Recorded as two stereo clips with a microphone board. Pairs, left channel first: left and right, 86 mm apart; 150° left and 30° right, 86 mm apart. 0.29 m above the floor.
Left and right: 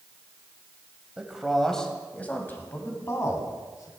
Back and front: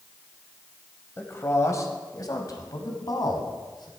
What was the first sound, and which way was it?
A man speaking, 165° right.